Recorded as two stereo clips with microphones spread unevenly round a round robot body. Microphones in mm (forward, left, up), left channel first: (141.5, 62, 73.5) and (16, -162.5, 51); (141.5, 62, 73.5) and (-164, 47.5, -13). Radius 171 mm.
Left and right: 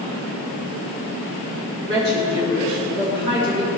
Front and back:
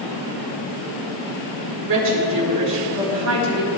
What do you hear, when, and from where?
1.9 s a woman speaking: 165° left, 5 m